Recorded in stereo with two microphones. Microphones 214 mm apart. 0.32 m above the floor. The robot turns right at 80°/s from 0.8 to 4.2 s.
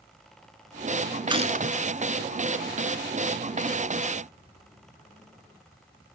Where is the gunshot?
160° right, 1.1 m; by 1.8 s 115° right, 1.1 m.